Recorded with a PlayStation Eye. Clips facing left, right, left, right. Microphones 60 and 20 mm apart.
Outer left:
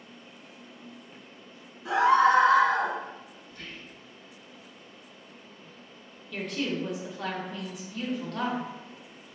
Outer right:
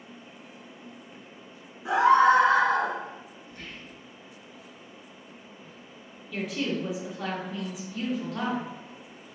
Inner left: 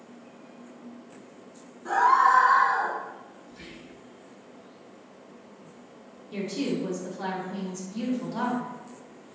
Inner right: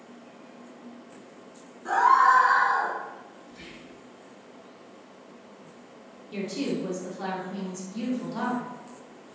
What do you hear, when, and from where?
1.9 s a scream: 20° right (ahead or behind), 1.0 m; by 3.0 s 35° right (ahead or behind), 0.9 m
3.5 s whispering: 30° right (ahead or behind), 1.6 m
6.3 s a woman speaking: centre (ahead or behind), 0.8 m